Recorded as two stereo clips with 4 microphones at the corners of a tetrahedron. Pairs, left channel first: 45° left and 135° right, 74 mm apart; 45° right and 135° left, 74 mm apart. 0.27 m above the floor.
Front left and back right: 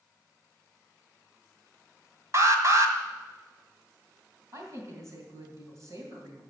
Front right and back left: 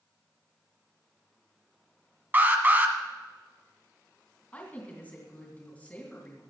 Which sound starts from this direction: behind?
An alarm, at 2.3 s.